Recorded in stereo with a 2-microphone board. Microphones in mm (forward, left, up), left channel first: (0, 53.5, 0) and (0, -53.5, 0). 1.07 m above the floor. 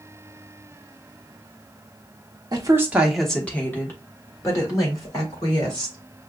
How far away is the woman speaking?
About 0.8 m.